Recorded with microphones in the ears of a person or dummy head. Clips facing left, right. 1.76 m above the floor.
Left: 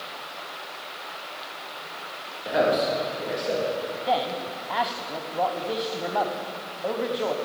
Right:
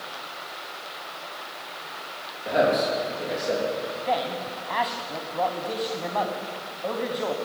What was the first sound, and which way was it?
A man speaking, 20° left (ahead or behind).